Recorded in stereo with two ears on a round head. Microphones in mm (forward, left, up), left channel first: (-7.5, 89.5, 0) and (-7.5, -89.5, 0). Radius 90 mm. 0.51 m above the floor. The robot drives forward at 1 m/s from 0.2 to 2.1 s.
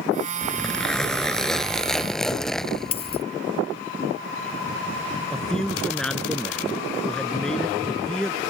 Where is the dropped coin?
30° left (ahead or behind).